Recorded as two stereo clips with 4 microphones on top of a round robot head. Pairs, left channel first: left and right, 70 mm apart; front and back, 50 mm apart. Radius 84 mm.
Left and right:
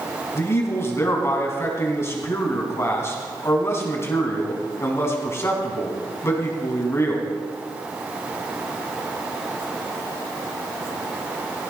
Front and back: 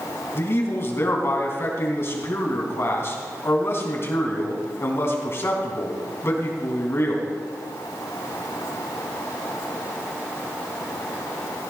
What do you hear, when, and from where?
0.3 s a man speaking: 40° left, 3.5 m